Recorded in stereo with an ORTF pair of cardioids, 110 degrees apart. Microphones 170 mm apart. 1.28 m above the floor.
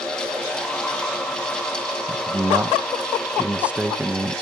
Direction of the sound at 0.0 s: 5° left.